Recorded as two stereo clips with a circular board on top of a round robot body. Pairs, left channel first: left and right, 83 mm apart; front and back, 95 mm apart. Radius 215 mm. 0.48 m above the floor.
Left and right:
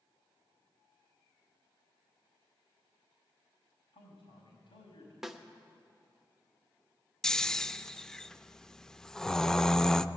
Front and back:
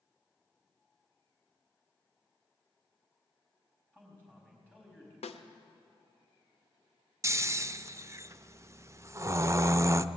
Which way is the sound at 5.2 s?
5° right.